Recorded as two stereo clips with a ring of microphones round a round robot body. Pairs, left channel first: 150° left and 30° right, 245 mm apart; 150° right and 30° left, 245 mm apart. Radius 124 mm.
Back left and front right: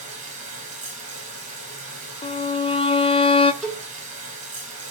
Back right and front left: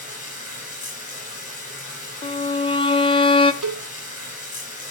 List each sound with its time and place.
0.0 s running water: 90° right, 6 m
2.2 s a violin: 175° left, 0.9 m
3.6 s a cowbell: 60° left, 3.5 m